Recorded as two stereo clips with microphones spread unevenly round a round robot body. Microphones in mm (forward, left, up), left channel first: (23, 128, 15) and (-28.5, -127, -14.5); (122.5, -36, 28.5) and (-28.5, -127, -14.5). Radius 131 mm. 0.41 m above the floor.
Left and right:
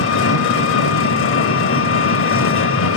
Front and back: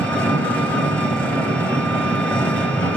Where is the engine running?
120° left, 1.4 m.